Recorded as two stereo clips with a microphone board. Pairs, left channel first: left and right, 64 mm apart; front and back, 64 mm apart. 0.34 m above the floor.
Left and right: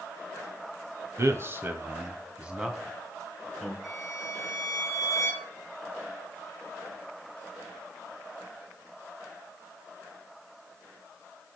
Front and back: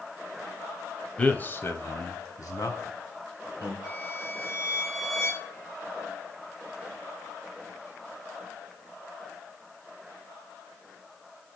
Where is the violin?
Straight ahead, 4.5 m.